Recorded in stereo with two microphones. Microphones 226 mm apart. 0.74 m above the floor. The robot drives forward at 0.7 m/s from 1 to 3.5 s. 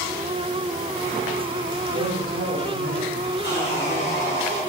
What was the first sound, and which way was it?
A woman speaking, 75° right (ahead or behind).